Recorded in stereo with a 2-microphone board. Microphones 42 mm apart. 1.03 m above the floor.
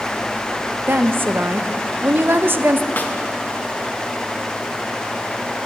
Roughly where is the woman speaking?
Right.